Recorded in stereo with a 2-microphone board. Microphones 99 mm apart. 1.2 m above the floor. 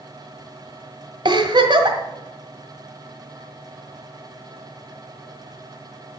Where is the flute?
I don't hear a flute.